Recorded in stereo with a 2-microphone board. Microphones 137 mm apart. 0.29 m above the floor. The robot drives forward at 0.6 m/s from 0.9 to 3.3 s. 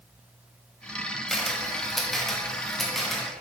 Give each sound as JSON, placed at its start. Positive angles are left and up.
{"t": 1.3, "sound": "a camera shutter", "side_deg": 5, "distance_m": 1.3}